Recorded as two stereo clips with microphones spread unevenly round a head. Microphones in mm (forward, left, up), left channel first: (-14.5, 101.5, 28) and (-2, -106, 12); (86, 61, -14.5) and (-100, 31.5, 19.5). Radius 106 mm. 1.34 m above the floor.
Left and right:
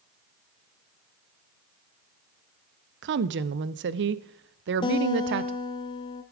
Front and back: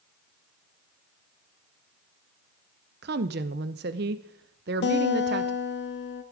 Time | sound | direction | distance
3.0 | a woman speaking | 125° right | 0.6 m
4.8 | a guitar | 30° left | 1.0 m